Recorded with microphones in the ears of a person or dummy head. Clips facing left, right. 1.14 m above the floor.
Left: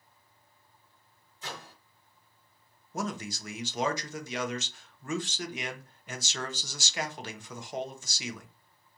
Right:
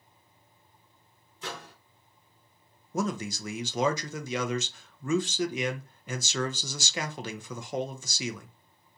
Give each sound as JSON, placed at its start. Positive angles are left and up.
{"t": 1.4, "sound": "a microwave", "side_deg": -55, "distance_m": 1.0}
{"t": 2.9, "sound": "a man speaking", "side_deg": -65, "distance_m": 0.6}